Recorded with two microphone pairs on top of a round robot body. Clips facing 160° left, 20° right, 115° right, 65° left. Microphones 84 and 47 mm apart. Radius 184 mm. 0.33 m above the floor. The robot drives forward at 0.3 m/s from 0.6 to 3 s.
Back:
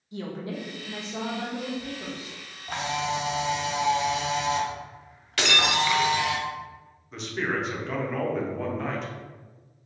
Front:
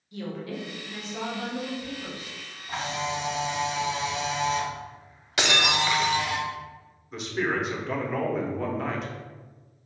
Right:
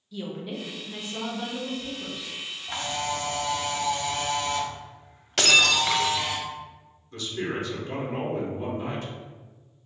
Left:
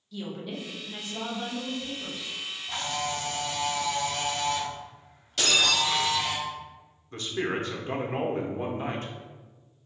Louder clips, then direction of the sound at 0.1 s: Back 1 dB, right 2 dB; 170° left.